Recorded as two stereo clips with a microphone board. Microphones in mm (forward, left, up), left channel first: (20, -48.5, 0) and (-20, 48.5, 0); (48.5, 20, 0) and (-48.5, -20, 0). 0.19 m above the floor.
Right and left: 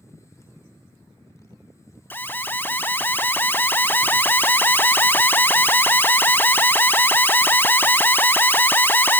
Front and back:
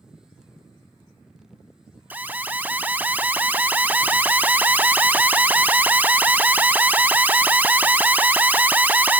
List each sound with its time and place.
2.1 s an alarm: 110° right, 0.7 m